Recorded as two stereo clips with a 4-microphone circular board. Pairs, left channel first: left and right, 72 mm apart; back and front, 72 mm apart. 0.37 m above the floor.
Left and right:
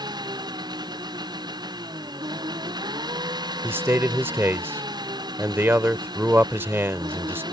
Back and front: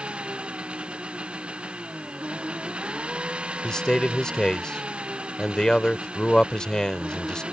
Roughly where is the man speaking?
Right.